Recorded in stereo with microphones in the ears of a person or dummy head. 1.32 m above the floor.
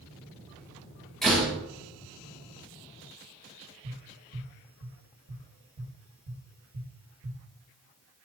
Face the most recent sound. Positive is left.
turn(degrees=-60)  # may be behind; listen again after turning